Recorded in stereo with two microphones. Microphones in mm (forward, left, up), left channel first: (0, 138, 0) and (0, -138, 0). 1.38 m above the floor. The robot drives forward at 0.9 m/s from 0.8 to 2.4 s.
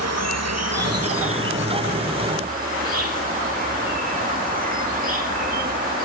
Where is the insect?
65° right (ahead or behind); by 6.0 s 30° right (ahead or behind).